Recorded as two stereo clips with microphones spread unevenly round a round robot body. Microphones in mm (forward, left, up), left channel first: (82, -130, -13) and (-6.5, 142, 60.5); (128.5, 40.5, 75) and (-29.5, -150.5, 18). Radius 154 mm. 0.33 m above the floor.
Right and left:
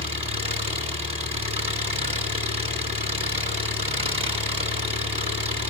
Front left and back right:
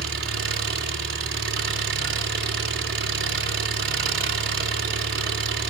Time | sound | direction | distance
0.0 | an engine running | 175° right | 3.5 m